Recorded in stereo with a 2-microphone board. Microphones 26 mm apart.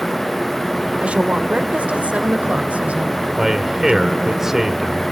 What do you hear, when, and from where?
1.0 s a woman speaking: 55° right (ahead or behind), 1.9 m; by 4.4 s 70° right (ahead or behind), 3.5 m
3.4 s a man speaking: 10° right (ahead or behind), 1.8 m